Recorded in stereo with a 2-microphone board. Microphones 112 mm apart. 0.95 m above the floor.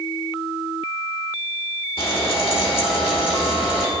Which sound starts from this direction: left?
Frying, at 2.0 s.